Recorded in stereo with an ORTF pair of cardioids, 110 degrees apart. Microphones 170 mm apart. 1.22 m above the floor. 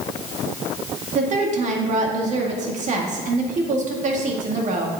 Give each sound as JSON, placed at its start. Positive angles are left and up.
{"t": 1.1, "sound": "a woman speaking", "azimuth_deg": -50, "distance_m": 2.0}